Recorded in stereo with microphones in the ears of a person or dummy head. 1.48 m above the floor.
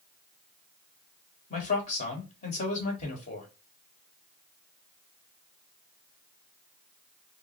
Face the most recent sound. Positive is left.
turn(degrees=40)  # may be behind; listen again after turning